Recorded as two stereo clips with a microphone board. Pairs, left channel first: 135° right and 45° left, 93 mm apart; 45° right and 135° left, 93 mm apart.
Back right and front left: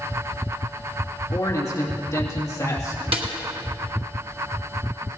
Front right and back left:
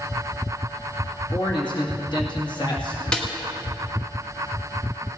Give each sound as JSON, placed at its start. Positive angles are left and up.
{"t": 1.3, "sound": "a man speaking", "azimuth_deg": -80, "distance_m": 2.0}
{"t": 3.1, "sound": "a snare drum", "azimuth_deg": 35, "distance_m": 1.9}